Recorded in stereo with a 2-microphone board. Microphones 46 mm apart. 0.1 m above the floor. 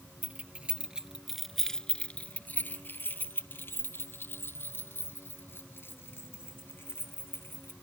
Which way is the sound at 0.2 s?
35° right (ahead or behind).